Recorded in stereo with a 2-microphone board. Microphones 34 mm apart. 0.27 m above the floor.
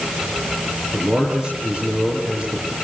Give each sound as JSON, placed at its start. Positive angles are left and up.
{"t": 0.9, "sound": "a man speaking", "side_deg": -30, "distance_m": 6.0}